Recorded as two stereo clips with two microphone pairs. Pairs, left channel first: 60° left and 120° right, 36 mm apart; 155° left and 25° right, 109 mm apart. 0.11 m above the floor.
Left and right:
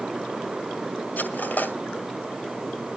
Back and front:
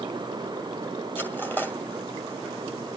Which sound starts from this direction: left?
Cutlery clinking, at 1.2 s.